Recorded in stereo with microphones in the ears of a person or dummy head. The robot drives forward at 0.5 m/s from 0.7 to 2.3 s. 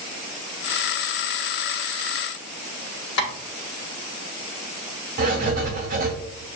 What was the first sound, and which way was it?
Tapping, 70° left (ahead or behind).